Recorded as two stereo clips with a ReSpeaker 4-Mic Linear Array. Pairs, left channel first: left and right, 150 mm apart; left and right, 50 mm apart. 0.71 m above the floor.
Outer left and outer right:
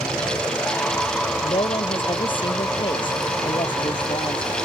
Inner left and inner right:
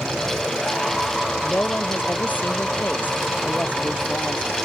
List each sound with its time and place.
1.4 s a woman speaking: 35° left (ahead or behind)